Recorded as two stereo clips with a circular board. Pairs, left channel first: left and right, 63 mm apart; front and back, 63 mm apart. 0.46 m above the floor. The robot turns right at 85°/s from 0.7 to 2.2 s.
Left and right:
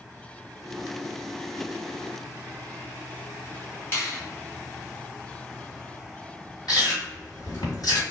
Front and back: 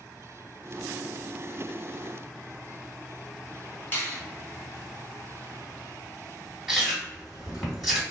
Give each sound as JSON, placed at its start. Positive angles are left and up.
{"t": 3.9, "sound": "a finger snap", "azimuth_deg": 50, "distance_m": 1.4}
{"t": 6.7, "sound": "chewing", "azimuth_deg": 90, "distance_m": 1.7}